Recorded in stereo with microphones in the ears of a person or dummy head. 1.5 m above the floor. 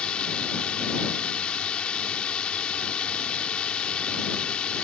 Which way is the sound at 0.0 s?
5° left (ahead or behind).